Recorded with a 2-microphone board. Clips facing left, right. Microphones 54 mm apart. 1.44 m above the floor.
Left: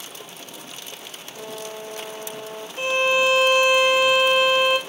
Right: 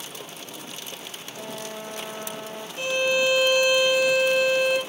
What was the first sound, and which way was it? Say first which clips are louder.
A trumpet: left 2 dB; 70° right (ahead or behind).